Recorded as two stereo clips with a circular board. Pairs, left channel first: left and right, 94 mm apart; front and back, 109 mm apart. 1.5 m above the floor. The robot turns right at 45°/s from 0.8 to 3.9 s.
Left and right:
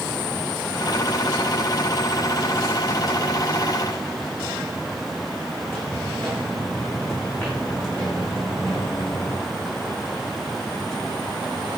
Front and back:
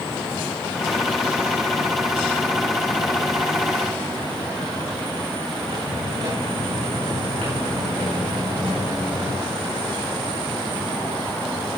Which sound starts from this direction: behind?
Footsteps, at 5.6 s.